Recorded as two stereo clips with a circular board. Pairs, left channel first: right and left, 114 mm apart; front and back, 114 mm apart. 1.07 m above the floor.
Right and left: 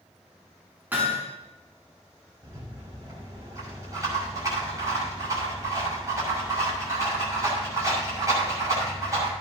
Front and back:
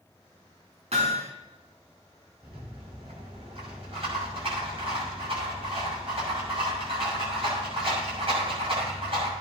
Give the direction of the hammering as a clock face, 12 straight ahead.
7 o'clock.